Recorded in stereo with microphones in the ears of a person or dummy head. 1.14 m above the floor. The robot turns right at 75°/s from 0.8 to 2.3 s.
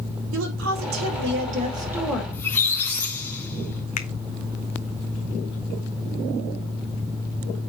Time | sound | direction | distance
0.3 | a woman speaking | 100° right | 3 m
2.3 | a squeak | 15° left (ahead or behind) | 2.5 m
4.0 | a finger snap | 45° left (ahead or behind) | 0.7 m